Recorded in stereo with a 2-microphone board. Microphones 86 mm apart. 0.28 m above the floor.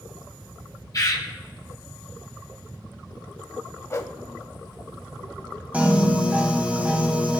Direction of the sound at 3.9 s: 35° left (ahead or behind).